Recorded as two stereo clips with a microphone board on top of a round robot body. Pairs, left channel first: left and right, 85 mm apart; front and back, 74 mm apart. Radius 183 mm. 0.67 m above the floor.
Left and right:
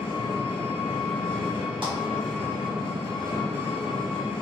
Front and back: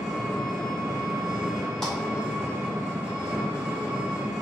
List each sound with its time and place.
0.0 s an engine running: 105° left, 1.0 m
1.8 s a clap: 85° right, 1.9 m